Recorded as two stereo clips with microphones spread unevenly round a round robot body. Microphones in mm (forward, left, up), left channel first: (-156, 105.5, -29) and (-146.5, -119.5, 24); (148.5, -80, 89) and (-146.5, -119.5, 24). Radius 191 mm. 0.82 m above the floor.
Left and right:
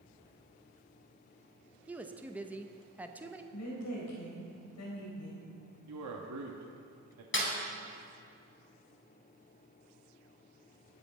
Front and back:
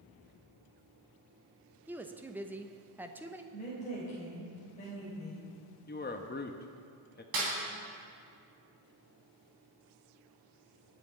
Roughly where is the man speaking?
Ahead right.